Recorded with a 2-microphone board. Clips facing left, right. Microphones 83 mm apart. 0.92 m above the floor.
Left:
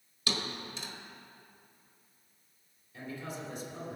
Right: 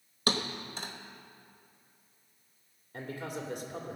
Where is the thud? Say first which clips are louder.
Right 4 dB; 50° right (ahead or behind), 1.1 m.